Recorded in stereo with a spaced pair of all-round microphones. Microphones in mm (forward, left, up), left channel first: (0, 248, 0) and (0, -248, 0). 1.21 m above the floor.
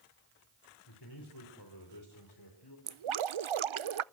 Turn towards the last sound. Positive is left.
turn(degrees=-70)  # may be behind; listen again after turning